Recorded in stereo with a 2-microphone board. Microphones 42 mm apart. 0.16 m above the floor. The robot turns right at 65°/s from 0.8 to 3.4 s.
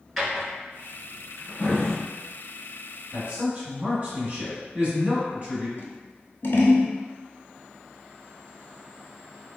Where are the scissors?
60° left (ahead or behind), 0.6 m.